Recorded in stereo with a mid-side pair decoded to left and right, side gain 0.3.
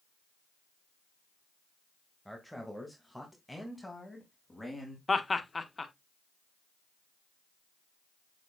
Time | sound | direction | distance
2.2 | a man speaking | 5° right | 2.5 m
5.1 | laughter | 35° left | 1.5 m